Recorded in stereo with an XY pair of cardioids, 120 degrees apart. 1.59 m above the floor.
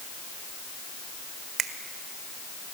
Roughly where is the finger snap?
Ahead right.